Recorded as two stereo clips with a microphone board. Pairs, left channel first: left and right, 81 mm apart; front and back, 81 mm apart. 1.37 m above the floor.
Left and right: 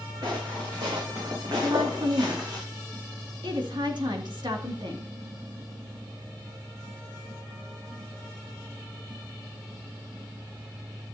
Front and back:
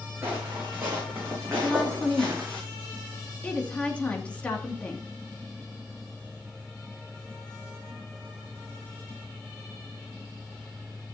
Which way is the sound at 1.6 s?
75° right.